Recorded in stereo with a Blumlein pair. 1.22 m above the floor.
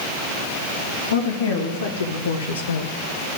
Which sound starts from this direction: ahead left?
A woman speaking, at 1.1 s.